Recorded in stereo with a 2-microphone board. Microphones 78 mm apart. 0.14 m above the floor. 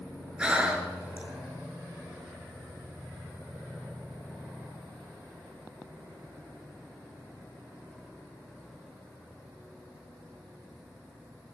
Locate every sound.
0.4 s breathing: 15° right (ahead or behind), 1.8 m